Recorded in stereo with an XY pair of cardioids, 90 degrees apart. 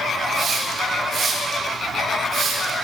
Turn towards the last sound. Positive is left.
turn(degrees=-65)